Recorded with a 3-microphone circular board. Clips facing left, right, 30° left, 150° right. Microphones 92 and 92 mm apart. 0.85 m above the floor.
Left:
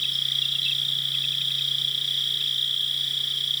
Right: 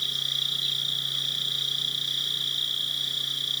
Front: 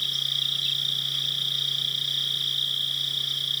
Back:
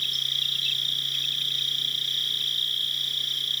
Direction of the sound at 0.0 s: 25° right.